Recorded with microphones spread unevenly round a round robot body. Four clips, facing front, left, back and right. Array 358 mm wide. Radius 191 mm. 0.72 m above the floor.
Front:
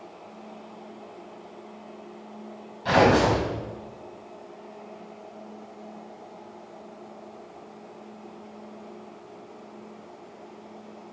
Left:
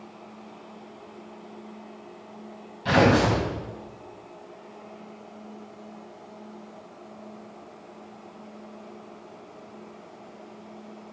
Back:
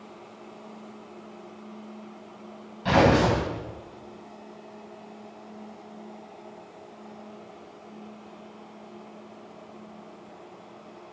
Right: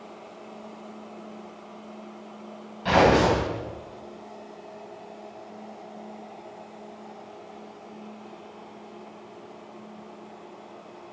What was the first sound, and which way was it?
Tearing paper, 155° left.